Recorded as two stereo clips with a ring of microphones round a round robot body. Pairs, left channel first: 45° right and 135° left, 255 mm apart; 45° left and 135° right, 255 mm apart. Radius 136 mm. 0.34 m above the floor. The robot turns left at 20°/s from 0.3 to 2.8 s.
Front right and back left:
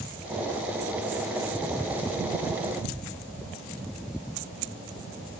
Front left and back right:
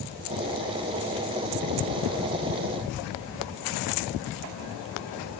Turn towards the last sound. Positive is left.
No sound to turn to.